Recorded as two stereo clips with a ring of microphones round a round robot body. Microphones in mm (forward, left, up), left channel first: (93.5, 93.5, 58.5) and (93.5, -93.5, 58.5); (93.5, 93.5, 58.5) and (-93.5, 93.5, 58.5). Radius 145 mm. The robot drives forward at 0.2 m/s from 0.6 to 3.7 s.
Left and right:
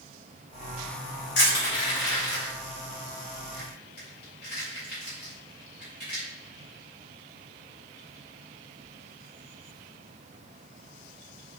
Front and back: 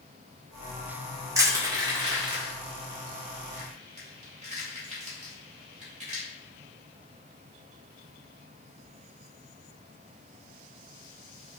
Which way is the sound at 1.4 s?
105° left.